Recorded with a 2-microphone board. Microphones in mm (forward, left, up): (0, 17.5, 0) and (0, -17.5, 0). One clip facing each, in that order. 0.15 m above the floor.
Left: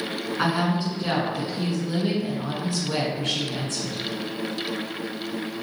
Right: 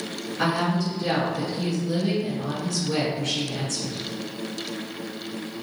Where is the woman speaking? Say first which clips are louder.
Even; 30° left (ahead or behind), 1.4 m.